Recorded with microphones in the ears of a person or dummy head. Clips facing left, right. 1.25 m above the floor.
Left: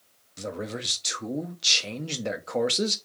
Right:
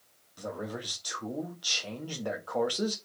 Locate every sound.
0.4 s a man speaking: 30° left (ahead or behind), 0.8 m